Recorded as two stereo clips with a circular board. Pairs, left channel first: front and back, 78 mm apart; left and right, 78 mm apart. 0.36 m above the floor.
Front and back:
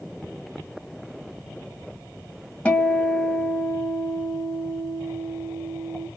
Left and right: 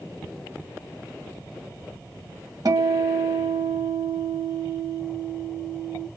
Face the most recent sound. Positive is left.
turn(degrees=-70)